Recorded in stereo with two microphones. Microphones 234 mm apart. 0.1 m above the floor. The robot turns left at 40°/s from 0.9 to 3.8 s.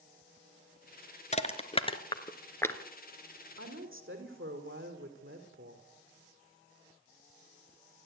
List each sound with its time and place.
1.3 s crushing: 25° left (ahead or behind), 1.5 m; by 2.8 s 5° left (ahead or behind), 1.5 m
3.6 s a woman speaking: 65° right (ahead or behind), 4.5 m; by 5.9 s 60° right (ahead or behind), 4.5 m